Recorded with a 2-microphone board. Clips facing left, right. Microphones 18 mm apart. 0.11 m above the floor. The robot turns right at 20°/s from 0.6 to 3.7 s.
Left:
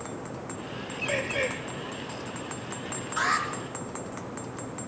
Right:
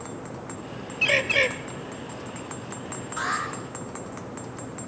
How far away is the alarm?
About 2.5 m.